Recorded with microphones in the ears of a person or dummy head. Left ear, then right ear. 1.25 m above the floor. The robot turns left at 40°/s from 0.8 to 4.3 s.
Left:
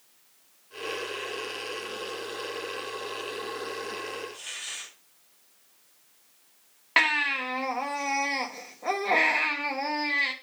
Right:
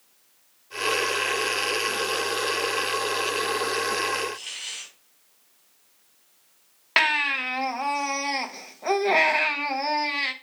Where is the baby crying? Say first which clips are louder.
Right 2 dB; 15° right (ahead or behind), 0.9 m.